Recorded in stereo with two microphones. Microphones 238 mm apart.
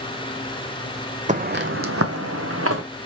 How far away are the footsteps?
About 0.6 m.